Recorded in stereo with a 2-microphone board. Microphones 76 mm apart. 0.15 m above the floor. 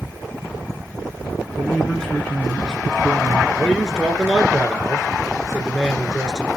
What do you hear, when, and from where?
1.6 s a man speaking: 10° left (ahead or behind), 1.8 m
3.5 s a man speaking: 10° left (ahead or behind), 2.5 m